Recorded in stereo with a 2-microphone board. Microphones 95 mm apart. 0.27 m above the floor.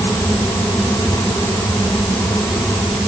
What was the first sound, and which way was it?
Only background noise.